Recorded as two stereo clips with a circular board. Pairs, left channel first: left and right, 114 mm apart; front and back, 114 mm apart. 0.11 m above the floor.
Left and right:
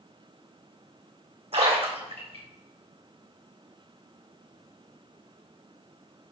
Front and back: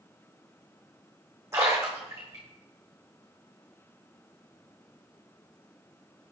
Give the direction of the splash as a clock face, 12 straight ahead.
4 o'clock.